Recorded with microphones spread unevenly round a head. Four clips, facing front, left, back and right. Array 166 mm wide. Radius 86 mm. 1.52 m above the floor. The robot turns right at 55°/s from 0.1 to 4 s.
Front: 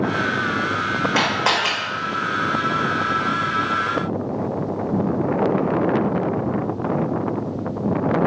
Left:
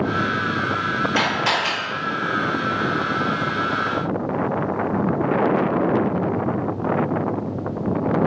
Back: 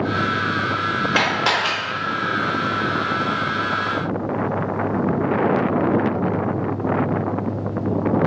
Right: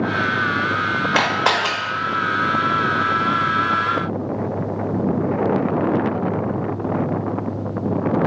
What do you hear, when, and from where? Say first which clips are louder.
1.1 s a camera shutter: right 5 dB, even; 90° right, 0.7 m; by 1.7 s 60° right, 0.7 m